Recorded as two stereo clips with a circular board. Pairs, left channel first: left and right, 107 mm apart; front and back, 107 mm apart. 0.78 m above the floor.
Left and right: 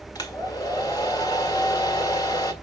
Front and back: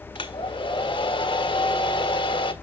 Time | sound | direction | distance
0.1 | a hair dryer | 40° left | 1.5 m